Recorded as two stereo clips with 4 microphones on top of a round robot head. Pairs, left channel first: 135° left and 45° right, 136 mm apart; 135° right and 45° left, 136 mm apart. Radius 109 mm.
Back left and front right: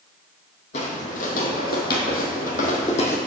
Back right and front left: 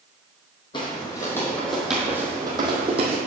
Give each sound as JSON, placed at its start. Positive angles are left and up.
{"t": 0.7, "sound": "footsteps", "azimuth_deg": 170, "distance_m": 1.1}